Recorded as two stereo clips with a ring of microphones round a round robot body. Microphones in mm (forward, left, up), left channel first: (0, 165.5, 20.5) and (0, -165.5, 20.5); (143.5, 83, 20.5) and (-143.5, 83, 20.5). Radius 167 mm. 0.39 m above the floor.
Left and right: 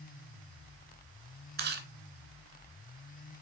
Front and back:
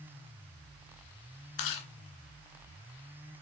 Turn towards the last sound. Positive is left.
turn(degrees=-30)